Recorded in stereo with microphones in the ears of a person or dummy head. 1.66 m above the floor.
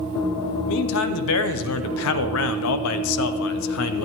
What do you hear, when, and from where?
0.7 s a man speaking: 80° left, 0.8 m